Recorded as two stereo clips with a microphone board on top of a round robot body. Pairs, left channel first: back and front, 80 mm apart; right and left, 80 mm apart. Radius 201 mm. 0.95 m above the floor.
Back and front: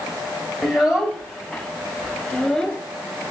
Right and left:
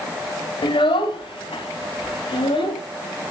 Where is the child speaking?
85° right, 1.2 m; by 2.8 s 90° right, 2.5 m.